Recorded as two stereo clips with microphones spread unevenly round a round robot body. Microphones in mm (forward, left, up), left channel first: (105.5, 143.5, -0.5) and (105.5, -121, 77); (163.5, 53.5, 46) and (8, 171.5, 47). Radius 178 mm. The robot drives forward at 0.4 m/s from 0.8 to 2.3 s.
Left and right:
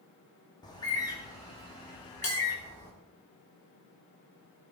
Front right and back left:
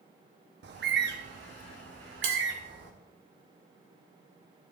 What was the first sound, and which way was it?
A bird, 155° left.